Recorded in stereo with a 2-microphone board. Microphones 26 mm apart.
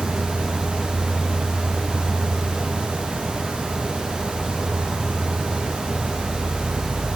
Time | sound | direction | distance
0.0 | an insect | 75° right (ahead or behind) | 2 m